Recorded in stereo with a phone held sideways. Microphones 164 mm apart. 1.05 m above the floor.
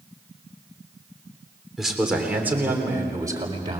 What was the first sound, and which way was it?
A man speaking, centre (ahead or behind).